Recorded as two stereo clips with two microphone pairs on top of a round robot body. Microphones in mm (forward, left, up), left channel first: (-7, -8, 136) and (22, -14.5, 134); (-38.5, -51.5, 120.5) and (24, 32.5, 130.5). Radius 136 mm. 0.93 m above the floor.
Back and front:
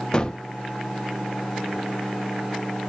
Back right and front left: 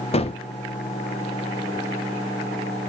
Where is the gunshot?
130° right, 0.5 m.